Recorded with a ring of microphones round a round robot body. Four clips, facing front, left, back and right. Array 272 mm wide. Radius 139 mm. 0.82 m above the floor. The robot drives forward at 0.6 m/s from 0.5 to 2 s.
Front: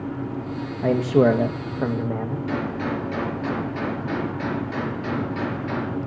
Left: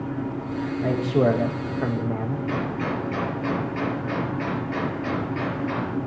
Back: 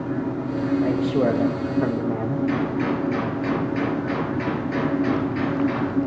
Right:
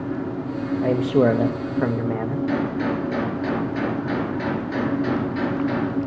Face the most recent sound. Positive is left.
turn(degrees=-95)